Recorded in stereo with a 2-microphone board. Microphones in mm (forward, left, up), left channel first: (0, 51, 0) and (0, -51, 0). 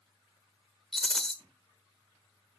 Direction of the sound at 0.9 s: Centre (ahead or behind).